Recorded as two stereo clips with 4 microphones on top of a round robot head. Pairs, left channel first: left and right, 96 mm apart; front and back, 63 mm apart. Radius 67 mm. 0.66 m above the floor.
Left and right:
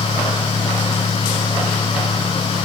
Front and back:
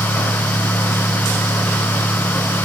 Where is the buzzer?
No buzzer in this recording.